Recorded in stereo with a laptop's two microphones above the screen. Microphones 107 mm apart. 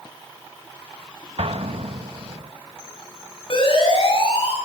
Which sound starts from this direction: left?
A siren, at 3.5 s.